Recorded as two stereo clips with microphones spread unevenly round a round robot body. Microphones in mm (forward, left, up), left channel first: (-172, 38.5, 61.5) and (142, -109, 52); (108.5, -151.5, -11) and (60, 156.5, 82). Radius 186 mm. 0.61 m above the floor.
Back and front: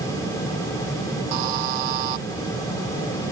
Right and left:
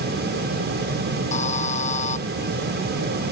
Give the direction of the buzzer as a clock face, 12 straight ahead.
12 o'clock.